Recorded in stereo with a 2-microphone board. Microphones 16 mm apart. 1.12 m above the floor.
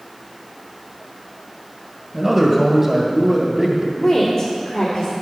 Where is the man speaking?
25° right (ahead or behind), 1.6 m.